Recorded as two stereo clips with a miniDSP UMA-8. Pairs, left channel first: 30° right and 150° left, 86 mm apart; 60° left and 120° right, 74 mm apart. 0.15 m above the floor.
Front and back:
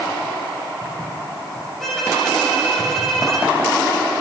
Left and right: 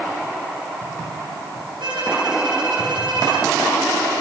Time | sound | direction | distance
1.8 | a violin | 115° right | 6.5 m